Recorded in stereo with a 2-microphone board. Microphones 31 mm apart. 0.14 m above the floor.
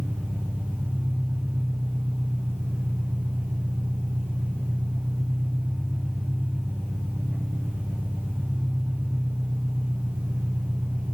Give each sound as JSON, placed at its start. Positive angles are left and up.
{"t": 0.0, "sound": "an engine running", "side_deg": -80, "distance_m": 6.0}